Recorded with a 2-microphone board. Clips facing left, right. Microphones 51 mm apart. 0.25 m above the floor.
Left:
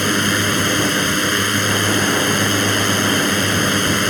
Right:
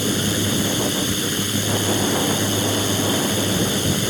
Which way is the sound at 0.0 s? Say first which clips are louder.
Left 5 dB; 60° left (ahead or behind).